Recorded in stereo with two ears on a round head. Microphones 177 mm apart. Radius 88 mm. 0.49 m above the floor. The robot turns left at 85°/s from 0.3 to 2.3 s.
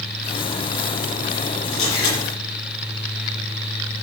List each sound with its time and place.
1.7 s a camera shutter: 150° left, 8.5 m; by 2.2 s 110° left, 8.5 m